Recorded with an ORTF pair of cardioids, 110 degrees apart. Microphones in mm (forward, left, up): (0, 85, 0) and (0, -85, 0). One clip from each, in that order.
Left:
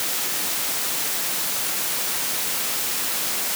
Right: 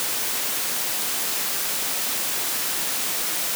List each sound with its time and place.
Only background noise.